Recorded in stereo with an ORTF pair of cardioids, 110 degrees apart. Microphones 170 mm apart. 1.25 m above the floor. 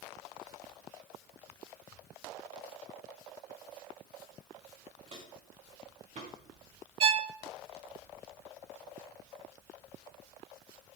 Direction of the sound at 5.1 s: 35° right.